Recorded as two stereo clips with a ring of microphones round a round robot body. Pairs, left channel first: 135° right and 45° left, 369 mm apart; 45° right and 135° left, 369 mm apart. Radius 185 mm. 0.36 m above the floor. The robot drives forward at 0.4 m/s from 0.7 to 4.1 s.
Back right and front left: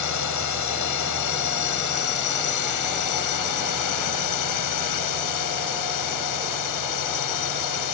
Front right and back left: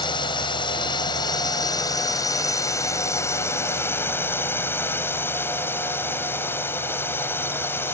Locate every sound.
0.0 s a drone: 120° right; by 8.0 s 130° right